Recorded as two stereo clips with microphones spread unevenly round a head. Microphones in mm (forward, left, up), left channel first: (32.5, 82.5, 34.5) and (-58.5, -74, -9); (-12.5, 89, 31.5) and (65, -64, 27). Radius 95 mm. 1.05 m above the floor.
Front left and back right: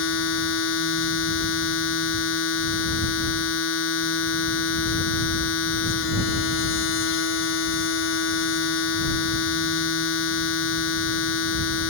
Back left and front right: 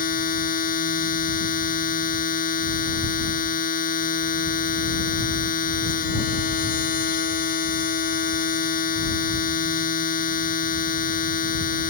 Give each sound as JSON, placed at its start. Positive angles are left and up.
{"t": 0.0, "sound": "a machine running", "azimuth_deg": 75}